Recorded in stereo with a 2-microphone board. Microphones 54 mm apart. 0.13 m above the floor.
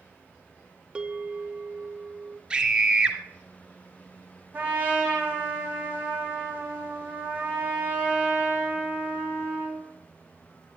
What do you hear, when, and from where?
0.9 s a bell: 20° right (ahead or behind), 1.0 m
2.5 s a scream: 20° right (ahead or behind), 2.5 m
4.5 s a trumpet: 30° right (ahead or behind), 5.5 m